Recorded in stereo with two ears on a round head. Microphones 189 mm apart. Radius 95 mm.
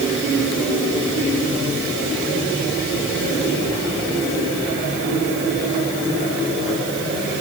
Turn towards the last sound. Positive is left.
No sound to turn to.